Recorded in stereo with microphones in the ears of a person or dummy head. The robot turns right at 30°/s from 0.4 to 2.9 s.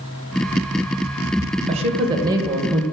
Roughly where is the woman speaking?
Ahead right.